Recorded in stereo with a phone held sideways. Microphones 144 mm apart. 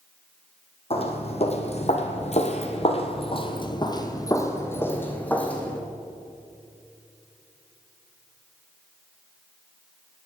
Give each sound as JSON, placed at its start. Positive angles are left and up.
{"t": 0.9, "sound": "footsteps", "side_deg": 45, "distance_m": 1.7}